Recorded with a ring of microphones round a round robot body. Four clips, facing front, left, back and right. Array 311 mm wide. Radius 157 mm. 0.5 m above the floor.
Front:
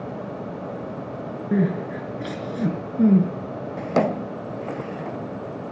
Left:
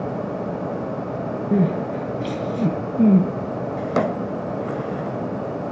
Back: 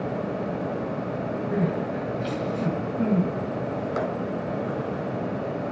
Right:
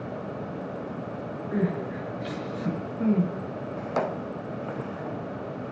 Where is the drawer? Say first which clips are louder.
Left 6 dB, front 10 dB; 35° left, 0.6 m.